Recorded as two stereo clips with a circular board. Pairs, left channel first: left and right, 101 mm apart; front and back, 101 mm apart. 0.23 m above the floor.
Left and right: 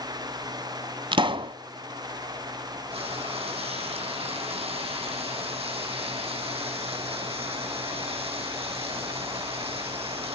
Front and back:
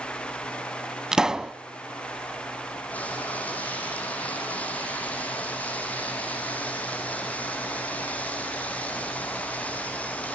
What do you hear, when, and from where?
1.1 s a pop: 100° right, 0.6 m
2.9 s frying: 75° right, 6.5 m